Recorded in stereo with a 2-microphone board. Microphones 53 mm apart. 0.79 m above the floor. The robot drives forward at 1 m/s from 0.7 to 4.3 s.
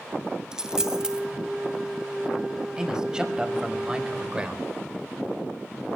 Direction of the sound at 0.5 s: 15° right (ahead or behind).